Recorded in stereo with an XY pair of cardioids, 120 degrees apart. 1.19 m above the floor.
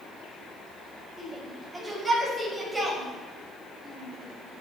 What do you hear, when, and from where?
1.2 s a shout: 10° right, 7 m